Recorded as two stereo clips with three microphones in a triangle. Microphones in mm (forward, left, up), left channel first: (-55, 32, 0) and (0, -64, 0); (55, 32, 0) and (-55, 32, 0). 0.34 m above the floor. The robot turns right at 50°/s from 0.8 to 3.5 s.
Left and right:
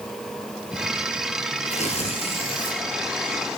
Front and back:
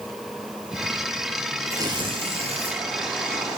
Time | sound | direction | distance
1.7 | tearing paper | 120° left | 3.5 m